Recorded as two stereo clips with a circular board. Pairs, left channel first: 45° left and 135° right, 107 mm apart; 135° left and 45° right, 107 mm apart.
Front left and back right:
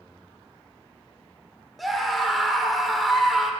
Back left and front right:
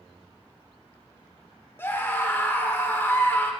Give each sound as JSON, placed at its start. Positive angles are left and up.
{"t": 1.8, "sound": "a scream", "azimuth_deg": 140, "distance_m": 1.1}